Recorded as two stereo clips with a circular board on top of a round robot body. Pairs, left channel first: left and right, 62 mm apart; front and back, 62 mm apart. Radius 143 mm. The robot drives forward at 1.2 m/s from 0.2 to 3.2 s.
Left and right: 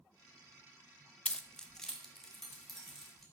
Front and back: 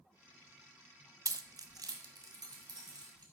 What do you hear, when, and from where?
1.2 s keys jangling: 160° left, 0.6 m; by 3.2 s 175° left, 3 m